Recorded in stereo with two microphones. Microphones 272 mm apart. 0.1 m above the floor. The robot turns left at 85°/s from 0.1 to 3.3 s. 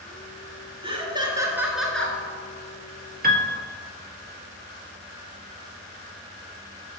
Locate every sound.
0.8 s laughter: 20° right (ahead or behind), 1.2 m; by 2.2 s 10° left (ahead or behind), 1.2 m
3.2 s a piano: 35° right (ahead or behind), 0.7 m; by 3.6 s 40° right (ahead or behind), 0.7 m